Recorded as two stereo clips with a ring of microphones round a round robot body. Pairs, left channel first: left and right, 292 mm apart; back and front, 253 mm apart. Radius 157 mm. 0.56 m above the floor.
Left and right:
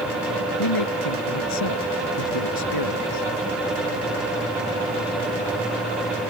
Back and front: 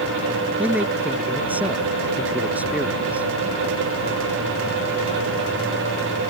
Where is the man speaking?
85° left.